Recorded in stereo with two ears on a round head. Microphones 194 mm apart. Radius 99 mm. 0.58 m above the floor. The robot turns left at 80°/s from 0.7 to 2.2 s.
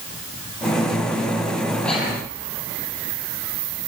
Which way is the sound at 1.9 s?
5° left (ahead or behind).